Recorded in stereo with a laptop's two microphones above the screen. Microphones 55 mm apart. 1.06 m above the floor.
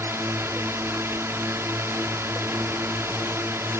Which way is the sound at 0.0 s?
55° right (ahead or behind).